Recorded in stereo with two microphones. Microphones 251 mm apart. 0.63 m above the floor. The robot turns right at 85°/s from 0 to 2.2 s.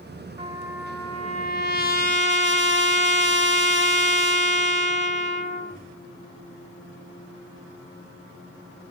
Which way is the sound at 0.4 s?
25° right.